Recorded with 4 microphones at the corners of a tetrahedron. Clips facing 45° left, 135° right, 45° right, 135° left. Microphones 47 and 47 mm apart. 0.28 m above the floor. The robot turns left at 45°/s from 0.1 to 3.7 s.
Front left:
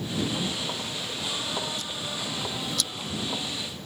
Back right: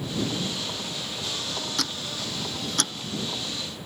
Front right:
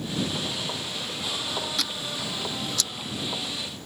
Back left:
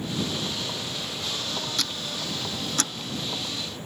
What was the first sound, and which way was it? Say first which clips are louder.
Ticking: back right 2 dB, even; 130° right.